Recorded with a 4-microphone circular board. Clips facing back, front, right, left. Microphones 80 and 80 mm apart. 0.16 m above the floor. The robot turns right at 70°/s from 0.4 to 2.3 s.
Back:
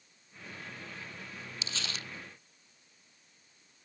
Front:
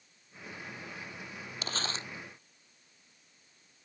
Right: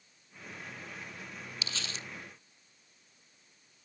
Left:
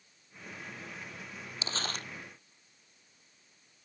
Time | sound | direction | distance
1.6 | crumpling | 35° left | ?